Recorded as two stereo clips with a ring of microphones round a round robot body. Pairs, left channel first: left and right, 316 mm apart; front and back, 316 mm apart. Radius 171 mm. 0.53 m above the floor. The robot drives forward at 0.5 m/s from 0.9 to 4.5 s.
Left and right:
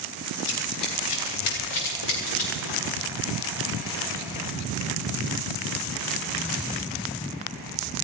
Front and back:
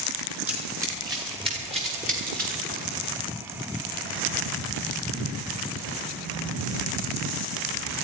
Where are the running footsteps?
95° left, 7 m; by 2.8 s 120° left, 8 m.